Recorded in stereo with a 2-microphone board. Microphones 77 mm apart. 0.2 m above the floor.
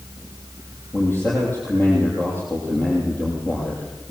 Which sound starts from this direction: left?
A man speaking, at 0.9 s.